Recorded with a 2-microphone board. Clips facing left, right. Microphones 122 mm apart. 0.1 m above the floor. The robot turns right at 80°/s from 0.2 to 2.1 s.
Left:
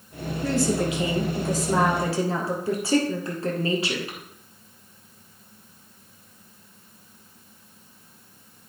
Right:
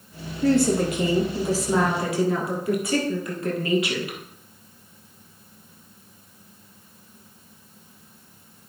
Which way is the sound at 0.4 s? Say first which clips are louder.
Right 4 dB; 100° right.